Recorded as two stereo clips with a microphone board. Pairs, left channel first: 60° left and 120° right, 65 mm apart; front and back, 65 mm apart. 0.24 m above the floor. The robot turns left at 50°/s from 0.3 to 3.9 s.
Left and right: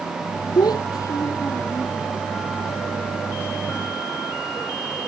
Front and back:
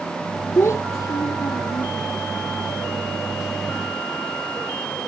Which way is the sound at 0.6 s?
55° left.